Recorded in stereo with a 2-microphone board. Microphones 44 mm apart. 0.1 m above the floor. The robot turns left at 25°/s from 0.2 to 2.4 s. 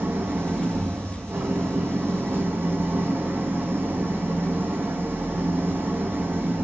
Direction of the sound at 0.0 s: 70° right.